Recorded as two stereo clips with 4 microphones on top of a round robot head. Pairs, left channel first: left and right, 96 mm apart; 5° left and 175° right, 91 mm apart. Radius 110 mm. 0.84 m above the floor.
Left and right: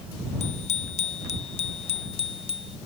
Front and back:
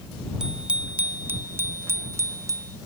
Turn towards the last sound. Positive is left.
turn(degrees=130)